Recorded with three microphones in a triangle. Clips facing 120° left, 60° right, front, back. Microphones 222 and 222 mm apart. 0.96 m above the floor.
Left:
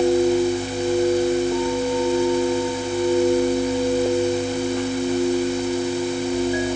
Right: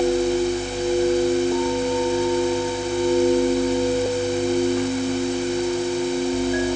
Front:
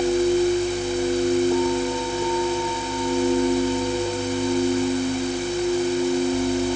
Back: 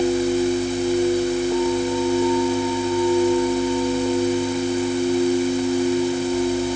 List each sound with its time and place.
Only background noise.